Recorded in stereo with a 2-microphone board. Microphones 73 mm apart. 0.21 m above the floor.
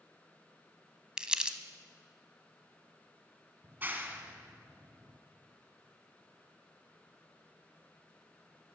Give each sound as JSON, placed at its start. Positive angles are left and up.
{"t": 1.2, "sound": "crumpling", "side_deg": -15, "distance_m": 0.7}
{"t": 3.6, "sound": "a clap", "side_deg": -25, "distance_m": 1.3}